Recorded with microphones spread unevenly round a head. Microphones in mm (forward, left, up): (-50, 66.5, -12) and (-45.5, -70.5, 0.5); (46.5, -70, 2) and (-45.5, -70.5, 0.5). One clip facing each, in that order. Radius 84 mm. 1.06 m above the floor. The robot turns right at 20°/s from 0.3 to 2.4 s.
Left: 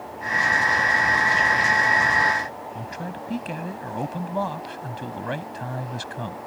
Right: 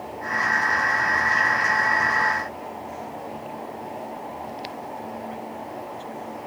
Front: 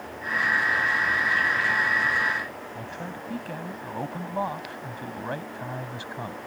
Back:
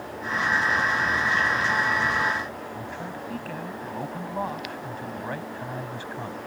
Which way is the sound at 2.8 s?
80° left.